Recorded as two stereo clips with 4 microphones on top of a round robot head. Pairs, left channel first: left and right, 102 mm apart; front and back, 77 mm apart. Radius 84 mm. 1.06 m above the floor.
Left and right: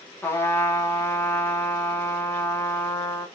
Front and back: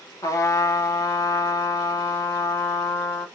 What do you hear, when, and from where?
0.2 s a trumpet: 30° left, 0.9 m